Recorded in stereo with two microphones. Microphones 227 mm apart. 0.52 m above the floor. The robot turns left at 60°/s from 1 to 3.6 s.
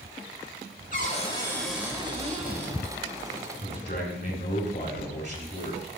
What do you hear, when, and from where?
0.9 s a cupboard door: 40° left, 1.6 m; by 2.8 s 65° right, 1.6 m
3.6 s a man speaking: 50° left (ahead or behind), 2.5 m